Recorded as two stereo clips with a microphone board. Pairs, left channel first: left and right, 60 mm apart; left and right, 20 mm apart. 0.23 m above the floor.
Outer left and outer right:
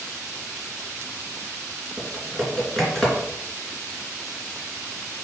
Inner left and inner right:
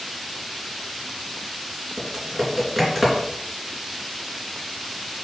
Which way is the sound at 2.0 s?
5° left (ahead or behind).